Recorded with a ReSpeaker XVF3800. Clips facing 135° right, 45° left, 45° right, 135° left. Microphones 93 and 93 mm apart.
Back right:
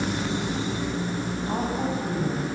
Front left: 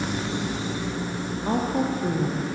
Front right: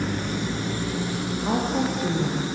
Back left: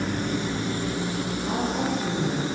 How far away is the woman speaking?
About 7 m.